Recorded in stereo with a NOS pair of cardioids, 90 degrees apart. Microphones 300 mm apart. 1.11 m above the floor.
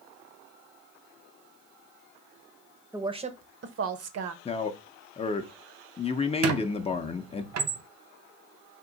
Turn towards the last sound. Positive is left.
turn(degrees=-60)